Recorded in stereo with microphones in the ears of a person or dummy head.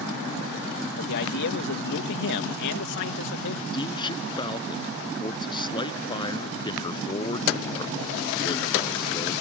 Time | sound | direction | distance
1.0 | a man speaking | 70° left (ahead or behind) | ?
3.7 | a man speaking | 30° left (ahead or behind) | ?